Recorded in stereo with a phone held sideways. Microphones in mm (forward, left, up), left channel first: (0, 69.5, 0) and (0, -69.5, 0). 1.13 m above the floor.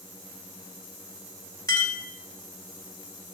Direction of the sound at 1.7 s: 25° left (ahead or behind).